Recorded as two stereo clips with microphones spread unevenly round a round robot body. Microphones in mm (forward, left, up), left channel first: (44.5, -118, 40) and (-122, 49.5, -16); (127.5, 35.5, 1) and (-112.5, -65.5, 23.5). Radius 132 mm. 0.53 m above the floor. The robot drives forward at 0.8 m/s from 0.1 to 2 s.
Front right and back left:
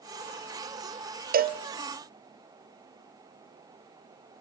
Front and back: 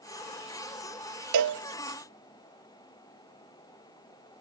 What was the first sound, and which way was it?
A cowbell, straight behind.